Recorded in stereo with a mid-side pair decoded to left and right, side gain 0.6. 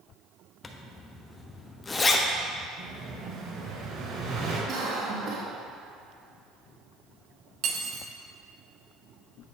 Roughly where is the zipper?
Ahead left.